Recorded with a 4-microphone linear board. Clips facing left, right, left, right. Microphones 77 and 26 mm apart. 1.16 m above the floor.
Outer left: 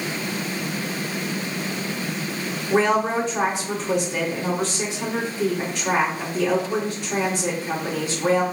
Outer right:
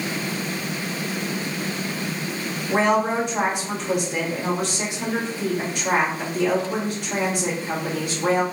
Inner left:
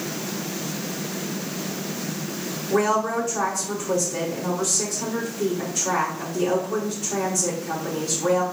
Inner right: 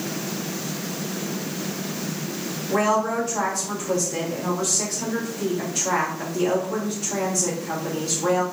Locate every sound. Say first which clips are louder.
2.7 s a woman speaking: even, even; 60° right (ahead or behind), 1.9 m